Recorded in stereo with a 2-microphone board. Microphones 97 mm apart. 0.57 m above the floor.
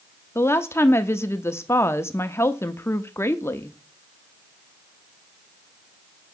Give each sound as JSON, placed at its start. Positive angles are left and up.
{"t": 0.3, "sound": "a woman speaking", "side_deg": 25, "distance_m": 0.6}